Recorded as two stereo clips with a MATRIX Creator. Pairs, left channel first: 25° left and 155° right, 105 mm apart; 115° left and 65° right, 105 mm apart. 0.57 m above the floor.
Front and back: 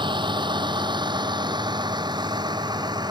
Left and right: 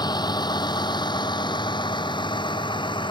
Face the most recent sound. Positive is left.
turn(degrees=155)